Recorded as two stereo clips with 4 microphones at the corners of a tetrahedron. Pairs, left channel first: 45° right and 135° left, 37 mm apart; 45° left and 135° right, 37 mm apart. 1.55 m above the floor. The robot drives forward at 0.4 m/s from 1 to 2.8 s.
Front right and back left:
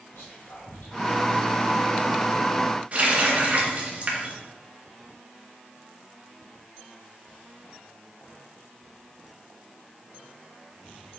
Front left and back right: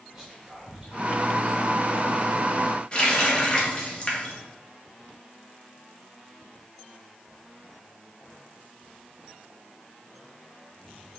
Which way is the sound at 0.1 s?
60° right.